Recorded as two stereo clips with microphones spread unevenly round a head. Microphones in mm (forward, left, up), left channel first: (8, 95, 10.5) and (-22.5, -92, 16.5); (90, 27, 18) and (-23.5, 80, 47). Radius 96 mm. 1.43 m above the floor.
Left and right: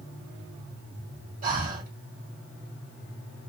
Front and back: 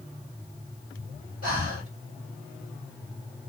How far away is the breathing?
About 2 m.